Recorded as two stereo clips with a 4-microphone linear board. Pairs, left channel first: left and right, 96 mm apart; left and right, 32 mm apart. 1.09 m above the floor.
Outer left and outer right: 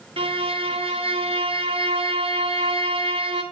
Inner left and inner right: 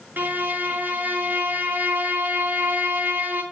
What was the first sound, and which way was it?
A violin, 80° right.